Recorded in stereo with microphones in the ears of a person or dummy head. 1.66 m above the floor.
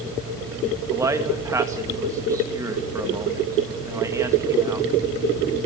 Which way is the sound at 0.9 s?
15° right (ahead or behind).